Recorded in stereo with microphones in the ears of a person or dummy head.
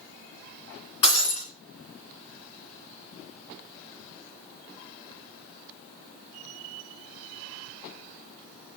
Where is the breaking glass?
25° left (ahead or behind), 3 m.